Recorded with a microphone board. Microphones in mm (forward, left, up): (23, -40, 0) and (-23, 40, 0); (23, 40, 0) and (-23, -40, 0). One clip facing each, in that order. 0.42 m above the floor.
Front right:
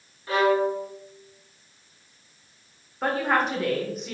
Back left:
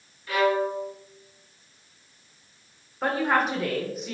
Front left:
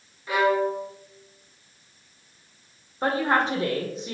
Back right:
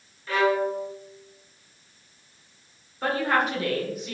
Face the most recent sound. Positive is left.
turn(degrees=30)